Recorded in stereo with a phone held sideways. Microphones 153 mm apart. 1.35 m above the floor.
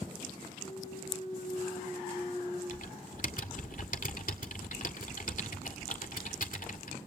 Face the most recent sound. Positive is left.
turn(degrees=60)  # may be behind; listen again after turning